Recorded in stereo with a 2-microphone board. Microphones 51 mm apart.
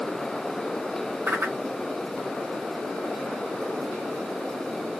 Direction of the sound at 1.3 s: 50° right (ahead or behind).